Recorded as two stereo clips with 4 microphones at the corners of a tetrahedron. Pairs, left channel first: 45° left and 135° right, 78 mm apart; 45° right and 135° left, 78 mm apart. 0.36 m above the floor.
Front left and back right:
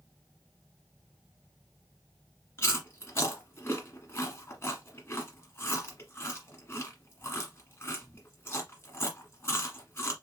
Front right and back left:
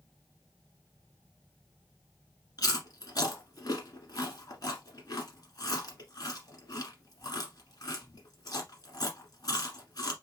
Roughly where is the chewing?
Ahead.